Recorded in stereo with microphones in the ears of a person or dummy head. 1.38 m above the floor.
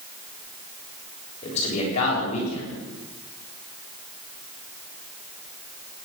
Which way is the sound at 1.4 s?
35° left (ahead or behind).